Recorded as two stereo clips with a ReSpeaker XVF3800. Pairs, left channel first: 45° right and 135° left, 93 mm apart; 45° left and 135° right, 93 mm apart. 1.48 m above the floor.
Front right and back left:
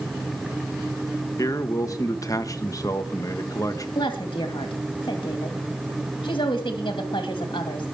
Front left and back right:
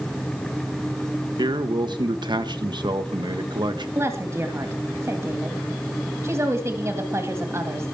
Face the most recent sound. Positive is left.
turn(degrees=-75)